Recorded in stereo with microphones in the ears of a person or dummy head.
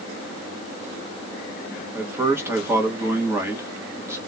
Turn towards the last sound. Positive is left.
turn(degrees=-10)  # may be behind; listen again after turning